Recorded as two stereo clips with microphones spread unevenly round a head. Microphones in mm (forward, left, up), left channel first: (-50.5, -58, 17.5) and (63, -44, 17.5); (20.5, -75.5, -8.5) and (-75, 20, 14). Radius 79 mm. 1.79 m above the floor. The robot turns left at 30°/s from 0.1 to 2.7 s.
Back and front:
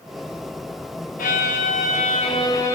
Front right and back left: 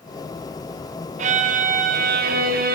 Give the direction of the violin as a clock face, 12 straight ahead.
7 o'clock.